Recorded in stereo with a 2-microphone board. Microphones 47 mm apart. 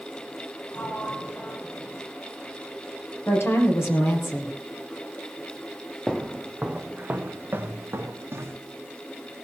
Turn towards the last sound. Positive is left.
turn(degrees=-60)  # may be behind; listen again after turning